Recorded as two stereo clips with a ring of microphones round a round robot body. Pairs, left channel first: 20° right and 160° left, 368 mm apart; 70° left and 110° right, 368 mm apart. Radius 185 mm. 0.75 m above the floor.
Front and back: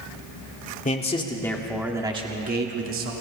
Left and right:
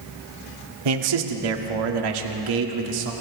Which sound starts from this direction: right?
A man speaking, at 0.8 s.